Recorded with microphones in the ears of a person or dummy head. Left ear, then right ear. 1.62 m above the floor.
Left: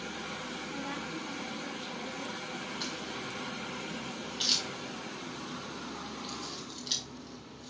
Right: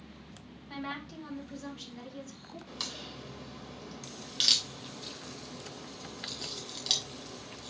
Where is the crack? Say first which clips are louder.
Right 3 dB; 40° right (ahead or behind), 3 m.